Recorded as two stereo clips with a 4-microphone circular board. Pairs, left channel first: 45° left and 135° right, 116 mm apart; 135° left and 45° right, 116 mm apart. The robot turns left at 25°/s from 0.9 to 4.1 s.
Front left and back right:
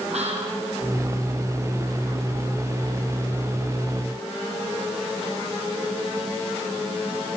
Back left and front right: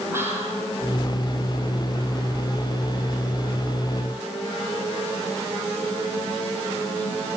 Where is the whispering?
115° right, 6.5 m.